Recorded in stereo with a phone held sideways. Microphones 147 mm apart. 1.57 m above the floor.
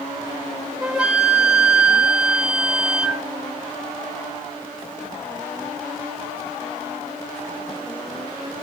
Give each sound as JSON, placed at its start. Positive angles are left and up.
{"t": 0.8, "sound": "a flute", "side_deg": -10, "distance_m": 3.0}